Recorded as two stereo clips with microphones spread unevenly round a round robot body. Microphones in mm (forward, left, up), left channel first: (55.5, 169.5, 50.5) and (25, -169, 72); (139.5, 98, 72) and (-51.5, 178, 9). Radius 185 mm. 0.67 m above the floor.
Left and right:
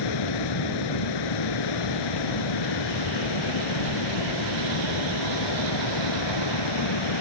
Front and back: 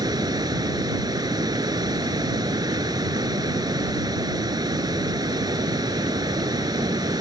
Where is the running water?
85° left.